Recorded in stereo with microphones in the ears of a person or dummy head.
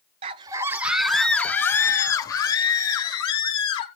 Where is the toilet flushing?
I don't hear a toilet flushing.